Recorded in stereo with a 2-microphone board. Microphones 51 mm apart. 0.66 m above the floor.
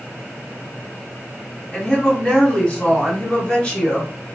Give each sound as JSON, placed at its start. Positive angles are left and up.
{"t": 1.7, "sound": "a woman speaking", "side_deg": 20, "distance_m": 1.6}